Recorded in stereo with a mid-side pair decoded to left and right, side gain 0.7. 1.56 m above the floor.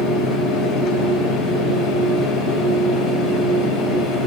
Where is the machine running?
50° left, 5 m.